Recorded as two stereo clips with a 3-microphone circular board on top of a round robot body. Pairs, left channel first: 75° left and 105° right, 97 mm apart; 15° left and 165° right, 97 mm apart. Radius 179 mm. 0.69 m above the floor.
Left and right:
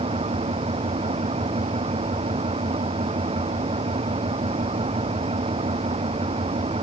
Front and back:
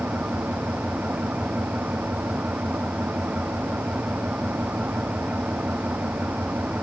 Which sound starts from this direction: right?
An engine running, at 0.0 s.